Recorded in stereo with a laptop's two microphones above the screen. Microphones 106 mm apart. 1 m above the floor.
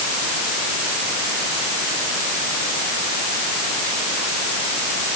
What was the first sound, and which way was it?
Only background noise.